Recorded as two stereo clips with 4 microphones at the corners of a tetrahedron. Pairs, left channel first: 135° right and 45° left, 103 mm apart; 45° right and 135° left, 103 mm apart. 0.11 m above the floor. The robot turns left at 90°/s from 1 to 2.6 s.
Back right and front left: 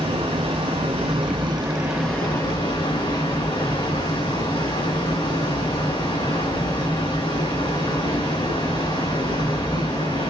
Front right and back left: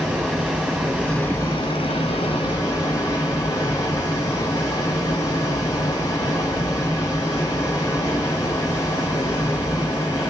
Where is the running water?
45° left, 3.5 m; by 10.3 s 100° right, 3.5 m.